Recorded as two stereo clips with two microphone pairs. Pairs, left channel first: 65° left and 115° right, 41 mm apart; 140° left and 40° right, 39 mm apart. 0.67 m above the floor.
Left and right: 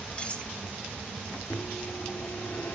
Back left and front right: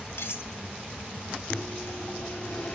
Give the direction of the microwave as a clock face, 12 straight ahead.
9 o'clock.